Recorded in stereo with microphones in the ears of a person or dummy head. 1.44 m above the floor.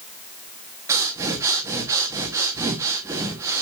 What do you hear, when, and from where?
0.9 s breathing: 10° right (ahead or behind), 1.2 m